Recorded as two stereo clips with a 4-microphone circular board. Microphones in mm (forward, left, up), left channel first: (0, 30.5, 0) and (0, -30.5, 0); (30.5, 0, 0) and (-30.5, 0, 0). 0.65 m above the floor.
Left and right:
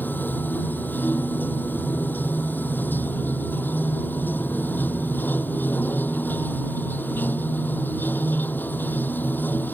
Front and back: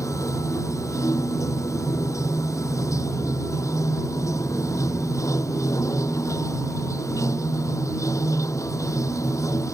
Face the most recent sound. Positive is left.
turn(degrees=30)